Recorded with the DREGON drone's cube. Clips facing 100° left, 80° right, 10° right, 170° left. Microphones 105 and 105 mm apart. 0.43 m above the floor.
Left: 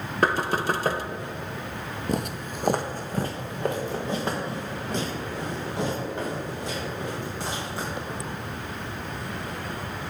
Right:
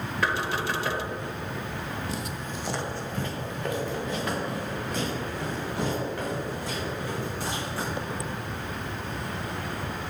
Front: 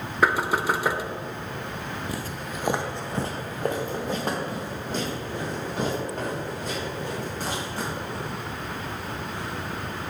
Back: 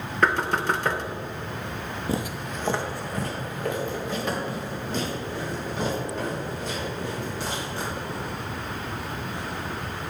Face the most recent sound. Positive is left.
turn(degrees=35)